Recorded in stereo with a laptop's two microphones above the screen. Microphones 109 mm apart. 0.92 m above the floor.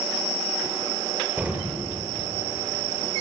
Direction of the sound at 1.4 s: 15° right (ahead or behind).